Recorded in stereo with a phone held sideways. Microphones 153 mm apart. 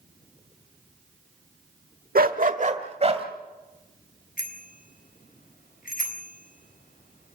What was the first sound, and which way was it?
A dog barking, 75° right (ahead or behind).